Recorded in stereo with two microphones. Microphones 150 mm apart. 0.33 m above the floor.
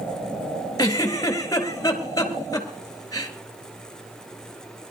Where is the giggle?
20° left (ahead or behind), 3 m.